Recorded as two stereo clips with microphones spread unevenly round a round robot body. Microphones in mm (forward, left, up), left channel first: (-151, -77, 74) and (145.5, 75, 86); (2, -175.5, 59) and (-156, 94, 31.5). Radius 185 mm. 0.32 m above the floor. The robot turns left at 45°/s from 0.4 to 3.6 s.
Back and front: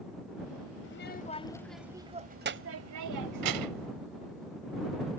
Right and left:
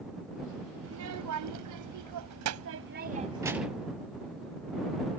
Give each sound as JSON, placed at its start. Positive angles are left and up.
{"t": 0.8, "sound": "a child speaking", "azimuth_deg": 160}